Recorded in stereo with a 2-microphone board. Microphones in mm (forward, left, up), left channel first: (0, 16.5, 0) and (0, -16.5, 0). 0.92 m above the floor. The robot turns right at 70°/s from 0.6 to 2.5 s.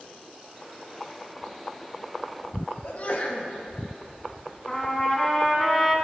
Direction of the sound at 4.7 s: 15° left (ahead or behind).